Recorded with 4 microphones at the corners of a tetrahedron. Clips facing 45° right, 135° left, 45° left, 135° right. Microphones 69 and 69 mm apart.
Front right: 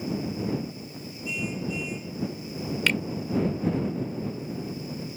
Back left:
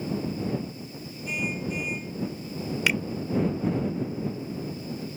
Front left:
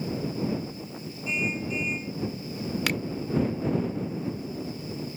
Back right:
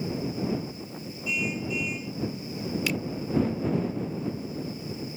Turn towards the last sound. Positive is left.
turn(degrees=55)